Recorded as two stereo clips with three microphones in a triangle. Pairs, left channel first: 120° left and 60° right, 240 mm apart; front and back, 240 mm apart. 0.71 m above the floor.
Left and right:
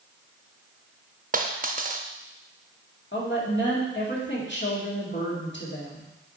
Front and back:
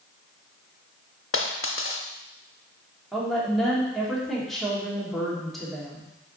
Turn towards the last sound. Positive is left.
turn(degrees=90)